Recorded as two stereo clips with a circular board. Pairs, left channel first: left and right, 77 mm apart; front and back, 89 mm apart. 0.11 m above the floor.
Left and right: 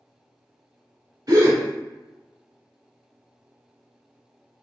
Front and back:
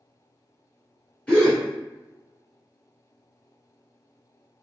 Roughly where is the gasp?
Right.